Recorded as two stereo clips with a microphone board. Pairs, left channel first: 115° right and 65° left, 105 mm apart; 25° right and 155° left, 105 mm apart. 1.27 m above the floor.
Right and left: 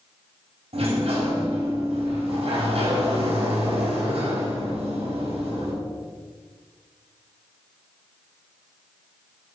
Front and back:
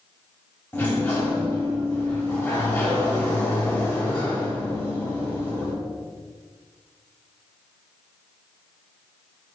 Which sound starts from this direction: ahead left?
A sliding door, at 0.7 s.